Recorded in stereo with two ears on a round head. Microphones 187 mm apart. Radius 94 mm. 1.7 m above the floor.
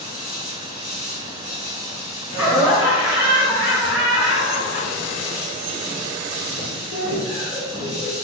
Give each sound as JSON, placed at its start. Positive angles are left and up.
{"t": 0.0, "sound": "an insect", "side_deg": -5, "distance_m": 1.2}
{"t": 2.3, "sound": "laughter", "side_deg": -5, "distance_m": 1.8}